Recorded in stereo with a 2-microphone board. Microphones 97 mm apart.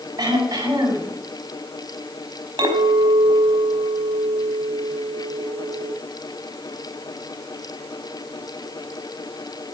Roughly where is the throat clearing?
Right.